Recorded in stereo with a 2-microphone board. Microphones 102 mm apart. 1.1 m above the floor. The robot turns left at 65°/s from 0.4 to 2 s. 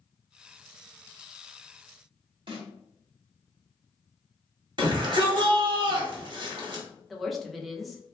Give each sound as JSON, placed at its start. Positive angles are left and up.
{"t": 2.5, "sound": "a snare drum", "side_deg": -55, "distance_m": 0.9}
{"t": 4.8, "sound": "a shout", "side_deg": -50, "distance_m": 1.1}
{"t": 7.1, "sound": "a woman speaking", "side_deg": 0, "distance_m": 0.5}